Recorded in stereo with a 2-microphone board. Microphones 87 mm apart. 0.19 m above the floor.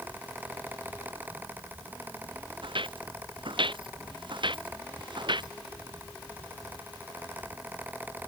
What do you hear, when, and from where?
2.6 s footsteps: 70° right (ahead or behind); by 5.5 s 60° right (ahead or behind)